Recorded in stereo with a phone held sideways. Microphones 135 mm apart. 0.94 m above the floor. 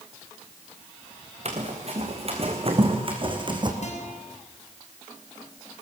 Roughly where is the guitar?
Left.